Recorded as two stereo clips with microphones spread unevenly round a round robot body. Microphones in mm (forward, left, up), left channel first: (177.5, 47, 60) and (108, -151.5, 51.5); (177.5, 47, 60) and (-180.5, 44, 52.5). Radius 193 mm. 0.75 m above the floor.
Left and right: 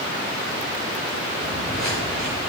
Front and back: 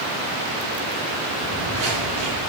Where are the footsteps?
170° left, 9 m.